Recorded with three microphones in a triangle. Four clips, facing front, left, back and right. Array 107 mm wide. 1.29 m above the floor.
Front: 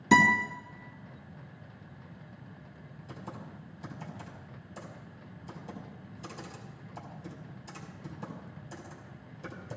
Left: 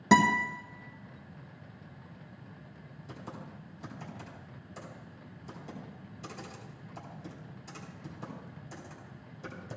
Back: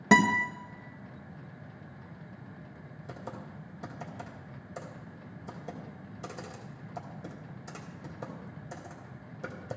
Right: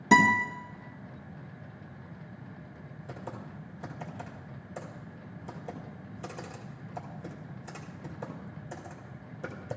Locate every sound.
0.1 s a guitar: 165° left, 1.8 m
3.1 s typing on a keyboard: 145° right, 2.5 m